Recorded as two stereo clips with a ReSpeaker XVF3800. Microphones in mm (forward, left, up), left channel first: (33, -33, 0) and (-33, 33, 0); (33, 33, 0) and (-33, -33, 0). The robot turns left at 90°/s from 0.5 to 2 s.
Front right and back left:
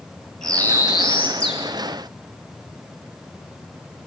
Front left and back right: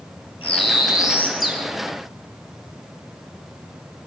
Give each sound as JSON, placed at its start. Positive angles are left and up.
{"t": 0.4, "sound": "a bird", "azimuth_deg": 40, "distance_m": 8.5}